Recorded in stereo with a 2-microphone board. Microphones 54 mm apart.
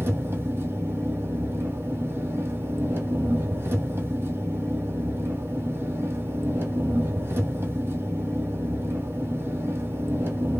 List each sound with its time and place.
0.0 s an engine running: 50° right (ahead or behind), 1.0 m